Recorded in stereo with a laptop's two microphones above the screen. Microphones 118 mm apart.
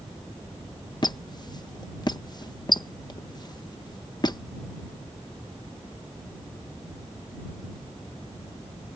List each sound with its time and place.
1.0 s a squeak: 35° left (ahead or behind)